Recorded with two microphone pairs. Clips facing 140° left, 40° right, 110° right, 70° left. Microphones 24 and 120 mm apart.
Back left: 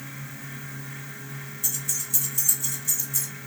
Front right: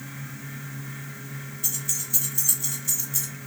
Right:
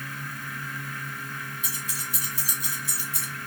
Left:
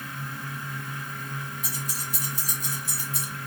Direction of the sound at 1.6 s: 40° left.